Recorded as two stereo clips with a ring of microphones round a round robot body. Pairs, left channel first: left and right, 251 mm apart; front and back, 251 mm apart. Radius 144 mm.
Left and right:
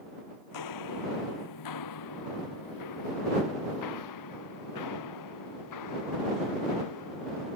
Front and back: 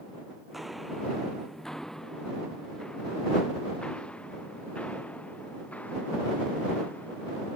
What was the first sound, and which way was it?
Footsteps, 90° left.